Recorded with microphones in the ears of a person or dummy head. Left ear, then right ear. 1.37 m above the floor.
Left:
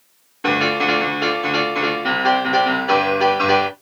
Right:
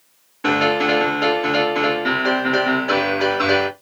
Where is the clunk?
No clunk in this recording.